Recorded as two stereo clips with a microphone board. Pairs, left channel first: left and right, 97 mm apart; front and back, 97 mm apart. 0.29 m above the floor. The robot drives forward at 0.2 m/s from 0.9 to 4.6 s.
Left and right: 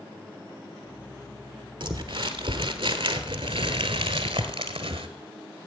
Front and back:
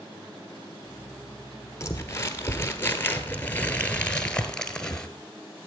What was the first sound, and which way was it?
Crumpling, 60° right.